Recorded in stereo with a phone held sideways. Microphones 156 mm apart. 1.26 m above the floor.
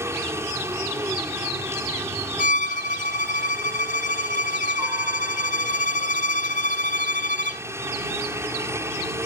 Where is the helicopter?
15° right (ahead or behind).